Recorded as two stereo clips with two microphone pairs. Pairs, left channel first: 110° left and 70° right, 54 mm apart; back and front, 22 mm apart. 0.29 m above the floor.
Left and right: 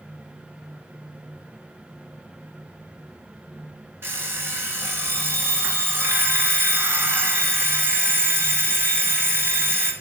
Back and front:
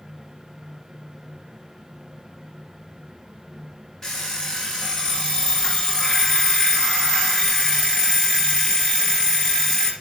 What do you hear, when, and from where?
4.0 s an alarm clock: 110° right, 1.8 m